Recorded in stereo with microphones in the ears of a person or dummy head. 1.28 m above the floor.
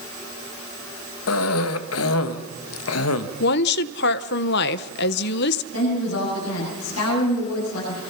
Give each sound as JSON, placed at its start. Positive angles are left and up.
{"t": 1.3, "sound": "a cough", "side_deg": 85, "distance_m": 1.4}
{"t": 3.4, "sound": "a woman speaking", "side_deg": 60, "distance_m": 0.8}
{"t": 5.7, "sound": "a woman speaking", "side_deg": 85, "distance_m": 9.0}